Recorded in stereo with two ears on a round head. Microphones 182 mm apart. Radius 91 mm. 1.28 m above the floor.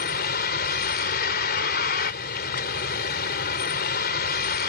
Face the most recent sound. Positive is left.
turn(degrees=50)  # may be behind; listen again after turning